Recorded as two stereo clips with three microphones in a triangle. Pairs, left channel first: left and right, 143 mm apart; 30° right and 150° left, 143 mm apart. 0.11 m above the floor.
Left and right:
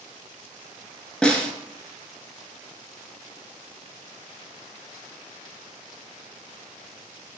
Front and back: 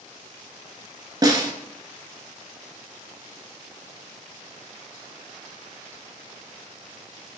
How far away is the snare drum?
About 0.8 m.